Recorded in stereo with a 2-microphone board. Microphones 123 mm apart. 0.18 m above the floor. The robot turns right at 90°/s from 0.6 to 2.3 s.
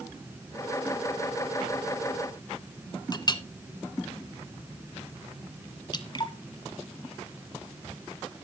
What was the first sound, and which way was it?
A clink, 35° left (ahead or behind).